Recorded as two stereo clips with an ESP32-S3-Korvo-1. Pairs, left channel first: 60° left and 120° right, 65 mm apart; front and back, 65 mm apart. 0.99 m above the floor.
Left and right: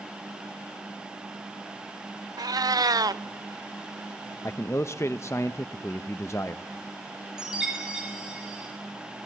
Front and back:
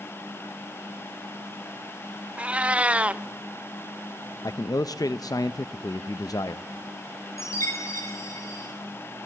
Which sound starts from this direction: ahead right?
A chime, at 7.4 s.